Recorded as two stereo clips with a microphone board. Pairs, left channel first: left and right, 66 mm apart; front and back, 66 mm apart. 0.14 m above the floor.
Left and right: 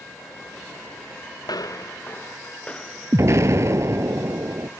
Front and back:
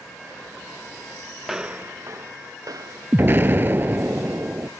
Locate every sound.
1.4 s footsteps: 90° left; by 4.1 s straight behind
3.1 s an explosion: 125° right